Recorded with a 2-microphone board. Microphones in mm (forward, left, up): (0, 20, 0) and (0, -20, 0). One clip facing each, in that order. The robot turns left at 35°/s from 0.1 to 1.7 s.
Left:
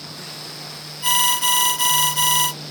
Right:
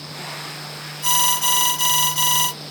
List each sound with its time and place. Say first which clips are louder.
1.0 s an alarm: left 1 dB; 20° left (ahead or behind), 1.4 m; by 2.5 s 10° left (ahead or behind), 1.4 m